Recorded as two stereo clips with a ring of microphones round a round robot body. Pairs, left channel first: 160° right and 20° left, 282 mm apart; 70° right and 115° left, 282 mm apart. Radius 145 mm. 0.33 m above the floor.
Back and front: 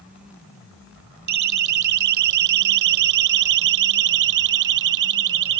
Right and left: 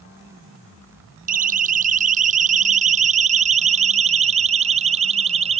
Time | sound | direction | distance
1.3 | a siren | 50° left | ?